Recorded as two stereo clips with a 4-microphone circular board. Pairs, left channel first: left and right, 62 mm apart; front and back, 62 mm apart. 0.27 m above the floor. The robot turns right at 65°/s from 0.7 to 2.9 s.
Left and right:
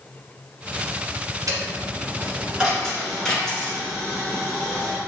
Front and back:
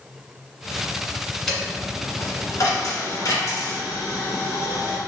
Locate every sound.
1.5 s a dropped coin: 85° right, 1.3 m; by 5.0 s 10° left, 1.3 m